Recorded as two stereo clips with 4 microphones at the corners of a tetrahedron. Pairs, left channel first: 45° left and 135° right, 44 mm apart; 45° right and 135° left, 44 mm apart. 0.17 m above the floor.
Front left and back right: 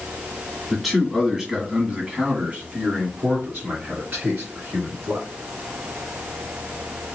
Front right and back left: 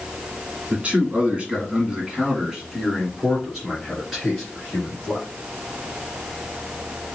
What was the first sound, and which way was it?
A man speaking, 130° left.